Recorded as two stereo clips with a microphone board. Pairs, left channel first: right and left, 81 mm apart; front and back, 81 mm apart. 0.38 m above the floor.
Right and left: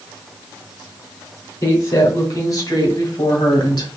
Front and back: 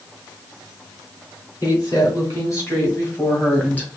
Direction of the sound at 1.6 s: 40° right.